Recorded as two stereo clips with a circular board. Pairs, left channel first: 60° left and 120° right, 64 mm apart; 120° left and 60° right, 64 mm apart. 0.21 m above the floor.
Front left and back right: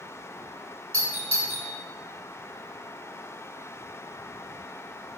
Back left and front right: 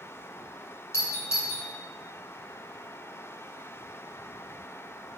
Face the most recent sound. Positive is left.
turn(degrees=110)